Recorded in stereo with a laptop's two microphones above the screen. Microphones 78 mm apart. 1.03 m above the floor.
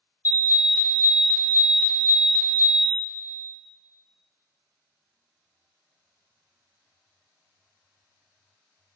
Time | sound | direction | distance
0.2 | an alarm | 25° right (ahead or behind) | 0.7 m